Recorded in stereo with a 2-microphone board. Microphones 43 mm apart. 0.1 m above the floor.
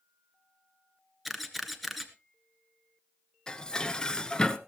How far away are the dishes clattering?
About 0.8 m.